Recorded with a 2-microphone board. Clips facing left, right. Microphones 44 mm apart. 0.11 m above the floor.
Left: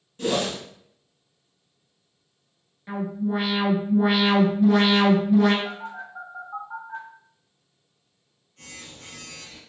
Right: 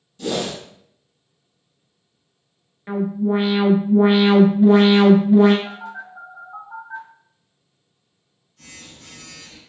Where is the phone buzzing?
65° left (ahead or behind), 1.5 m.